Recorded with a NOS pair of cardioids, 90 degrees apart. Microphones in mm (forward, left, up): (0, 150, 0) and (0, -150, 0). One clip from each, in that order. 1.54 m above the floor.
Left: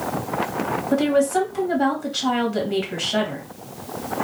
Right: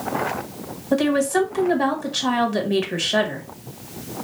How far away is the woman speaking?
About 2 m.